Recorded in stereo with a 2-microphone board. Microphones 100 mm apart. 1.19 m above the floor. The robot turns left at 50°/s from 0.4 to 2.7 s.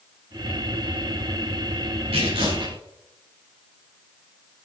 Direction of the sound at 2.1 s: 80° right.